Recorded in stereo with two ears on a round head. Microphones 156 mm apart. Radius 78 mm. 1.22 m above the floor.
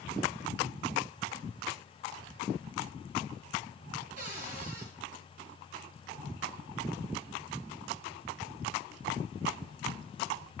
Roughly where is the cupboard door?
Right.